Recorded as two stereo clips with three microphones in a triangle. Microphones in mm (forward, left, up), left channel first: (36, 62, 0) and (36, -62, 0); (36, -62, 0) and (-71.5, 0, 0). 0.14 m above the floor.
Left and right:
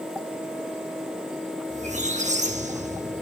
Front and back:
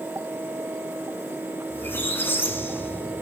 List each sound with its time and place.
1.7 s a squeak: 105° right, 1.6 m